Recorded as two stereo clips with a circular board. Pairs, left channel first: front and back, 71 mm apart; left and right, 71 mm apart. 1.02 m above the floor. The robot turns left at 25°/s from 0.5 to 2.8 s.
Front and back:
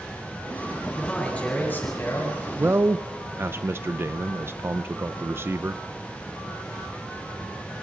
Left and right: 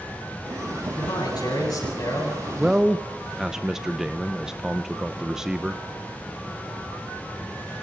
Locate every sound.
1.0 s a man speaking: 80° left, 10 m; by 2.5 s 45° left, 10 m
2.6 s a man speaking: 160° right, 0.6 m; by 5.8 s 165° right, 0.6 m